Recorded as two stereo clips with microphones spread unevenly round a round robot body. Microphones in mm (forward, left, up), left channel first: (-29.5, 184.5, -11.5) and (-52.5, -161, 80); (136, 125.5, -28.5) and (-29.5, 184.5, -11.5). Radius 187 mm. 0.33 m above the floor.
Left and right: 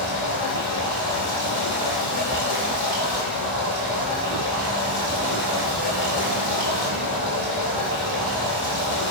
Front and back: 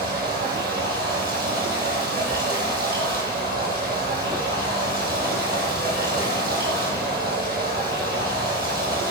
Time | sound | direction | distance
0.0 | running water | 130° left | 3 m